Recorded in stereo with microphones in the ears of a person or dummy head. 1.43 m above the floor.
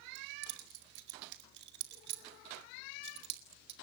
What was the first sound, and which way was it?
Keys jangling, 70° right (ahead or behind).